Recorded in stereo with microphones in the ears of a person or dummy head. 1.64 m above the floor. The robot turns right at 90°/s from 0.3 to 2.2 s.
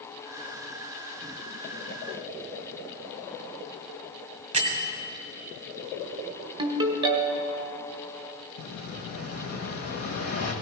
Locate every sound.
4.5 s a bell: 40° right (ahead or behind), 1.7 m
6.6 s a ringtone: 30° right (ahead or behind), 1.3 m
8.6 s an explosion: 45° left (ahead or behind), 1.5 m